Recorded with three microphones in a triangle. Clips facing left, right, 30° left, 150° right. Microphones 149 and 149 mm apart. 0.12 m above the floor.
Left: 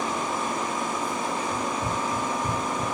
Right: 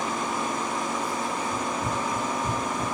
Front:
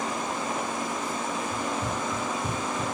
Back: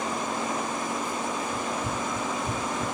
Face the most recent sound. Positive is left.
turn(degrees=20)